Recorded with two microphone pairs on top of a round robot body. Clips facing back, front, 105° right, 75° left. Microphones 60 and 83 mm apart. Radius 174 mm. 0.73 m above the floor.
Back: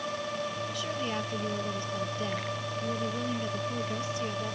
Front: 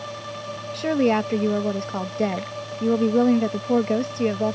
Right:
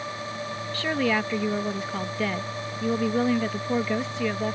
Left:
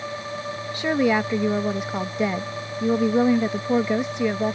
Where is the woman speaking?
5° left.